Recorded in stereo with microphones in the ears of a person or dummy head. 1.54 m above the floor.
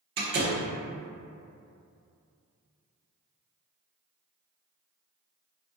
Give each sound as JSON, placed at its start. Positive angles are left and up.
{"t": 0.2, "sound": "a door slam", "side_deg": -25, "distance_m": 0.6}